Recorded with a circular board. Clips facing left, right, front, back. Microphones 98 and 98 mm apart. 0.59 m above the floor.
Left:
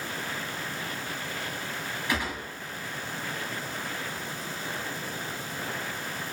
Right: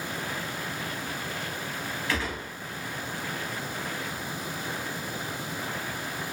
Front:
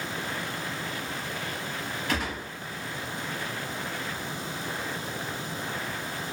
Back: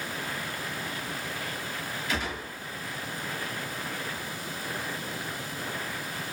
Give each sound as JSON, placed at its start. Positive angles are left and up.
{"t": 2.1, "sound": "a gunshot", "azimuth_deg": 20, "distance_m": 1.3}